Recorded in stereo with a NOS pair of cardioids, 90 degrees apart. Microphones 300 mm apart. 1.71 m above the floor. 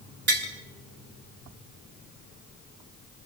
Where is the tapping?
40° right, 6.5 m.